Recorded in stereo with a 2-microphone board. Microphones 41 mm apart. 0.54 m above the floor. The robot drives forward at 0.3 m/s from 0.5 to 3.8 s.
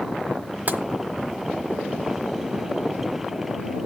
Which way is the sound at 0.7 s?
45° right (ahead or behind).